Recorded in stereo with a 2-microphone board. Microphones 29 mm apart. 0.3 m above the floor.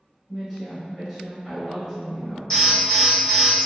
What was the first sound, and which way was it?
A woman speaking, 5° left (ahead or behind).